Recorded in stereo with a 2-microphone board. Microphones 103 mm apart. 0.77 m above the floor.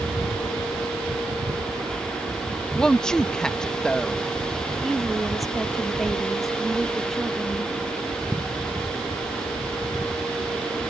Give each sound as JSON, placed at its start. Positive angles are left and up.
{"t": 2.8, "sound": "a woman speaking", "side_deg": 5}
{"t": 4.8, "sound": "a woman speaking", "side_deg": 0}